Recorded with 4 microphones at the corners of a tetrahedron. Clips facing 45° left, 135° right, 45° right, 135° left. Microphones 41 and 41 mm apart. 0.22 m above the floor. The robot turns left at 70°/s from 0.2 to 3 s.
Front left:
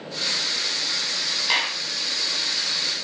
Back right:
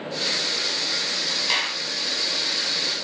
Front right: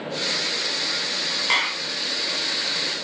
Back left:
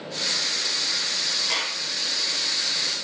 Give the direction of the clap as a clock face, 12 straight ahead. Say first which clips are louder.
Front left 2 dB, front right 10 dB; 1 o'clock.